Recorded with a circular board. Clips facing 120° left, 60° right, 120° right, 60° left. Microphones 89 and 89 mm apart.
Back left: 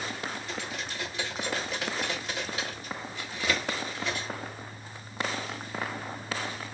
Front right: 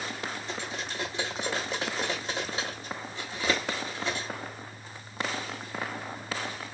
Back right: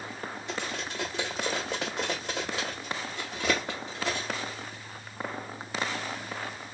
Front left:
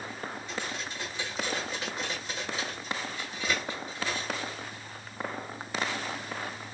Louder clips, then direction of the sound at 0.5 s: Front right 1 dB, back right 2 dB; 120° right.